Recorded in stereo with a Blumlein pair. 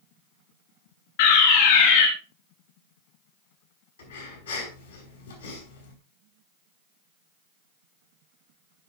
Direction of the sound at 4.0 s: 65° left.